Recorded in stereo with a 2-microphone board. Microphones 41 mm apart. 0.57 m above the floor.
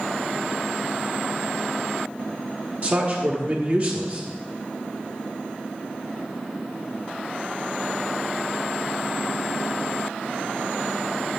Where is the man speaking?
35° right (ahead or behind), 1.2 m.